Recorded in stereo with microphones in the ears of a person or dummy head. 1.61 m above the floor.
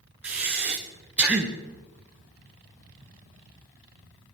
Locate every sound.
0.2 s breathing: 5° right (ahead or behind), 0.9 m